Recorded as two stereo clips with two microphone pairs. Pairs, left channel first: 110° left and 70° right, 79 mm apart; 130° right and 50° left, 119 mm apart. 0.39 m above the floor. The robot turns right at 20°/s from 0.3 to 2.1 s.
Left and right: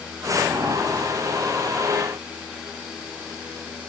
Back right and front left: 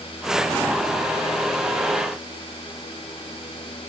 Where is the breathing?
No breathing in this recording.